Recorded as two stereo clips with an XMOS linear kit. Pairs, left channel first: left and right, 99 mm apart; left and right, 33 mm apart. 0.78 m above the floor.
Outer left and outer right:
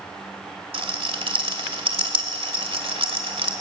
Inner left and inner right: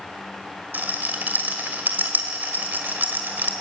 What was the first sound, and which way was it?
A rattle, 65° right (ahead or behind).